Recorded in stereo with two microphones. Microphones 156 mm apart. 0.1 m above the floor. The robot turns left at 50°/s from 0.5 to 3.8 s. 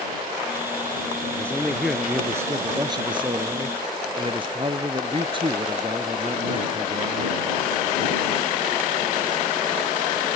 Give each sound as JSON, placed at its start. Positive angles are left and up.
{"t": 1.3, "sound": "a man speaking", "azimuth_deg": 25}